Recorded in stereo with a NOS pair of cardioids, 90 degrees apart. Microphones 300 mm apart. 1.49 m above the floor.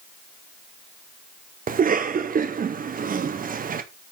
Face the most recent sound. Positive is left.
turn(degrees=-30)